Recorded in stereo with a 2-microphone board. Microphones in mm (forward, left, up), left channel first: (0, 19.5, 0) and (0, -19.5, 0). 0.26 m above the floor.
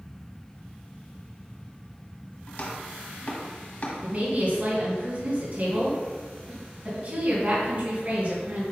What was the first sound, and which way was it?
Chopping, 50° left (ahead or behind).